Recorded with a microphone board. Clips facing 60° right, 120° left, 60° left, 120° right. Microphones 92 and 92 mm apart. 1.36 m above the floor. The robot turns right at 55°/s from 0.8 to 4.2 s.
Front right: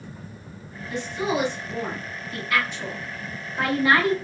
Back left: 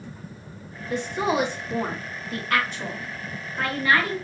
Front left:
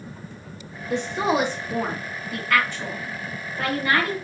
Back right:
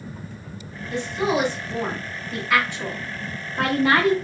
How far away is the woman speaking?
About 1.8 m.